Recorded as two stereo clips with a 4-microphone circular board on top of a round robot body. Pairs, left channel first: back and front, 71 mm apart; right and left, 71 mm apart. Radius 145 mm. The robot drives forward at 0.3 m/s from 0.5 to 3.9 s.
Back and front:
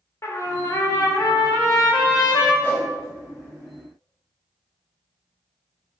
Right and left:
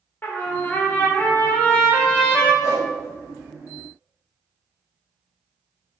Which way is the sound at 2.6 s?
115° right.